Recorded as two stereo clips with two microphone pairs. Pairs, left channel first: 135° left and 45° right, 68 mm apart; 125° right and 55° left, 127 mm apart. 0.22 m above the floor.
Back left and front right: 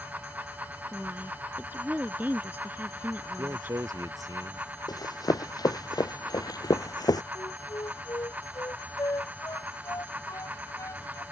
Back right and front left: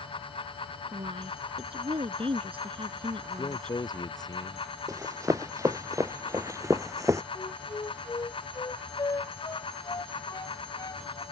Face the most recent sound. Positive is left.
turn(degrees=175)